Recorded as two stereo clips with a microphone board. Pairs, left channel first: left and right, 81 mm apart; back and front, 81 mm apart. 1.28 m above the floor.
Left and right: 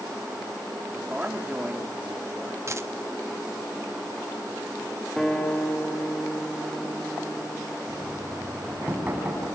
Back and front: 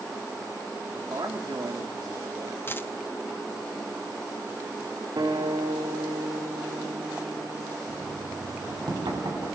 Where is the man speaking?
20° right, 3 m.